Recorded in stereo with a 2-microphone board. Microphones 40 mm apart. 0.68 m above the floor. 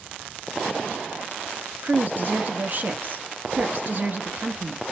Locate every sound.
1.8 s a woman speaking: 45° right (ahead or behind), 0.6 m